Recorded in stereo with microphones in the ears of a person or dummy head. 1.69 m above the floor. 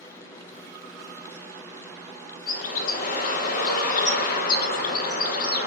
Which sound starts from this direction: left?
A bird, at 2.5 s.